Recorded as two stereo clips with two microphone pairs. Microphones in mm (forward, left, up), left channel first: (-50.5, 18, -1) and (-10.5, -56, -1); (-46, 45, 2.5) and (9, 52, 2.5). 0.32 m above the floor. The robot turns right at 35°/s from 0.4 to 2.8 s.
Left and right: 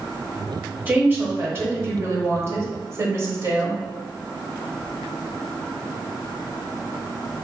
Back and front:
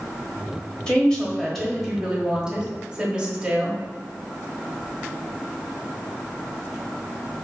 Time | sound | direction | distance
0.9 | a woman speaking | 110° right | 1.1 m